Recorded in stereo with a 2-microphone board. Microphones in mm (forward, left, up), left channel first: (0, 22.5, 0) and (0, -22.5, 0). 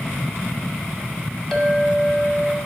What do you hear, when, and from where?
1.5 s a clink: 15° left (ahead or behind), 0.9 m